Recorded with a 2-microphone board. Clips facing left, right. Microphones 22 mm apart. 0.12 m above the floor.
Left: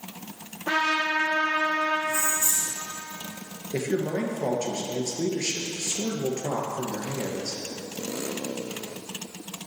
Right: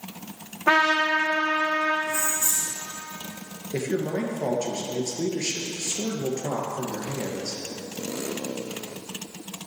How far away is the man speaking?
About 2.5 m.